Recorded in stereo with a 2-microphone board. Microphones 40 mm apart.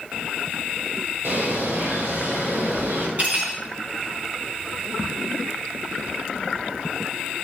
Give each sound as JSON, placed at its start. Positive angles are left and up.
{"t": 1.2, "sound": "a bird", "side_deg": -80, "distance_m": 5.0}
{"t": 3.2, "sound": "cutlery clinking", "side_deg": -40, "distance_m": 3.0}